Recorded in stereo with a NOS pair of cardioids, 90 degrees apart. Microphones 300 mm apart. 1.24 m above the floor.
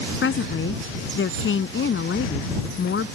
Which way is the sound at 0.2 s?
40° left.